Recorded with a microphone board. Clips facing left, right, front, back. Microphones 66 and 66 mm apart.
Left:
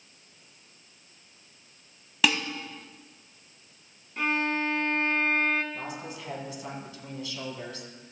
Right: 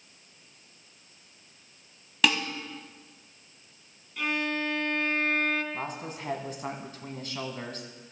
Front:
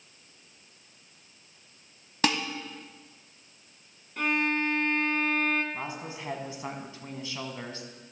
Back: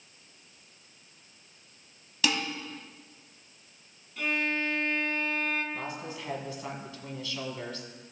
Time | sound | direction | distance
2.2 | dishes clattering | 5° left | 1.0 m
4.2 | a violin | 35° left | 0.8 m
5.7 | a woman speaking | 60° right | 1.5 m